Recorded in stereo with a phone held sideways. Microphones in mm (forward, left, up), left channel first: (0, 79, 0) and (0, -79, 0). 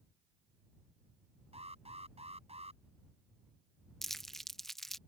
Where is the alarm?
40° right (ahead or behind).